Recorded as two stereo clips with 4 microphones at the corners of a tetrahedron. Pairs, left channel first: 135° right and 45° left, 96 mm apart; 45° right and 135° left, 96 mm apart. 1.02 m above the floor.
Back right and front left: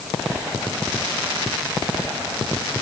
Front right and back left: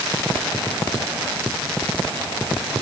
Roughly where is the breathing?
No breathing in this recording.